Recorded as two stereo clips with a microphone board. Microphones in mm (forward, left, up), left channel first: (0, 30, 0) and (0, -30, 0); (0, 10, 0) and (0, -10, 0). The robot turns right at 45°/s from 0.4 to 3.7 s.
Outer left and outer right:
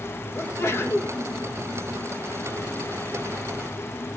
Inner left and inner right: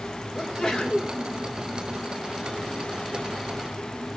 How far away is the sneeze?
About 1.2 m.